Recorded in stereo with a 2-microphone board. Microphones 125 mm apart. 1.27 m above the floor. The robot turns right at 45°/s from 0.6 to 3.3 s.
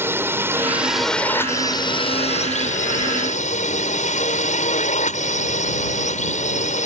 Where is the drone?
20° right; by 6.9 s 105° left.